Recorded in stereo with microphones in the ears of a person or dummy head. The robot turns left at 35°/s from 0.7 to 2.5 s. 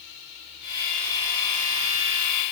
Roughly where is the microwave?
No microwave in this recording.